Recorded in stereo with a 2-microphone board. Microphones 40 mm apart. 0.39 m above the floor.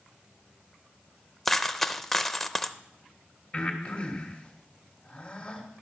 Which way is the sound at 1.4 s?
5° left (ahead or behind).